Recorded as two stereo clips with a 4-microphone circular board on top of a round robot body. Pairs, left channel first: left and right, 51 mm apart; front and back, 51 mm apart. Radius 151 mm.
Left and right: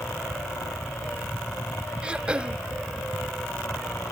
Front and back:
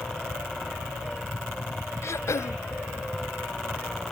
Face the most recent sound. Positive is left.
turn(degrees=-20)